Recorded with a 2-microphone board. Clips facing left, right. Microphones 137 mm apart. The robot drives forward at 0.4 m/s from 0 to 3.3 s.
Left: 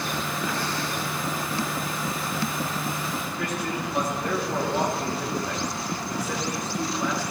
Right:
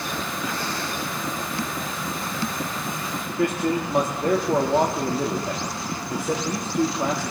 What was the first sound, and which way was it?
A man speaking, 50° right (ahead or behind).